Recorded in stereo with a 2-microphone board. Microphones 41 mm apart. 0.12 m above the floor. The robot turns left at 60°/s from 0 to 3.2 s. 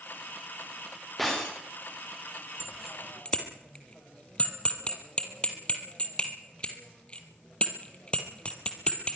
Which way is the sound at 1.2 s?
Centre (ahead or behind).